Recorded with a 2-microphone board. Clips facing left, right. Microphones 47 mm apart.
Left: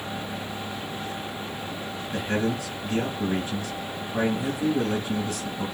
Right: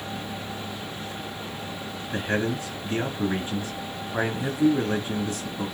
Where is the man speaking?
35° right (ahead or behind), 2 m.